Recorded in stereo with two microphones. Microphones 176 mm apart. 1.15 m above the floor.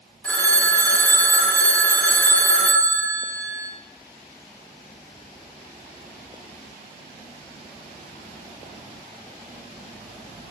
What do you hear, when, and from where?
0.2 s a phone ringing: 5° left (ahead or behind), 1.7 m